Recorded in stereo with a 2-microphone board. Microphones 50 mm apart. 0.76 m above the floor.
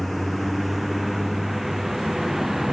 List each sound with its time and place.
0.0 s a vehicle: centre (ahead or behind); by 2.7 s 5° right (ahead or behind)